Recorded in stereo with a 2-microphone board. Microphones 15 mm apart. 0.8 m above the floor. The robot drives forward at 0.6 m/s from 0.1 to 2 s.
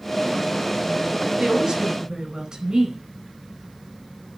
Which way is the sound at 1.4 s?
60° right (ahead or behind).